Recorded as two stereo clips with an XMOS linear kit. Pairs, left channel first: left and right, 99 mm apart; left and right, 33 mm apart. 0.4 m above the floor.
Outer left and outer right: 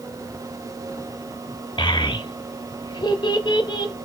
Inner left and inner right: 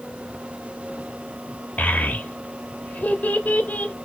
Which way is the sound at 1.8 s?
55° left (ahead or behind).